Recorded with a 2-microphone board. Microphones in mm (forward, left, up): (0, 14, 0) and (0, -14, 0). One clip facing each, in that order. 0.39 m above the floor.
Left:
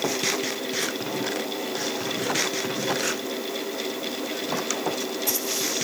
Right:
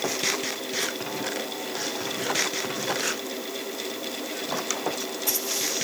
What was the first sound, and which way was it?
Only background noise.